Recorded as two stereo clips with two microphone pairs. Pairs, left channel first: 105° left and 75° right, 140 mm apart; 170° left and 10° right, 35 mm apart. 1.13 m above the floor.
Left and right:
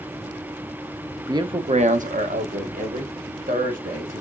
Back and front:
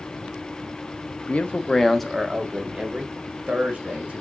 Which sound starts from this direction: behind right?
A man speaking, at 1.3 s.